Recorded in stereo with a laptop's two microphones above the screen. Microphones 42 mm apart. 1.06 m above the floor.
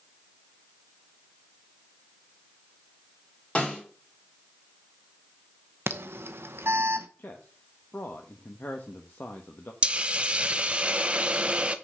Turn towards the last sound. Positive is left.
turn(degrees=-25)  # may be behind; listen again after turning